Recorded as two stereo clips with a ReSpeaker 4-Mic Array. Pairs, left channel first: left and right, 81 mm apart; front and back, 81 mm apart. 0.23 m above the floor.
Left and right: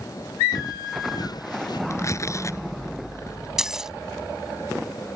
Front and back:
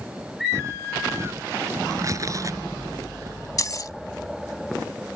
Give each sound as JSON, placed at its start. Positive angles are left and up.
{"t": 0.5, "sound": "footsteps", "azimuth_deg": 125}
{"t": 1.9, "sound": "tearing paper", "azimuth_deg": 135}
{"t": 3.6, "sound": "keys jangling", "azimuth_deg": -10}